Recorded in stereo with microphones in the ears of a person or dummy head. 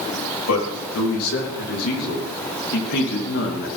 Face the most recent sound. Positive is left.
turn(degrees=60)  # may be behind; listen again after turning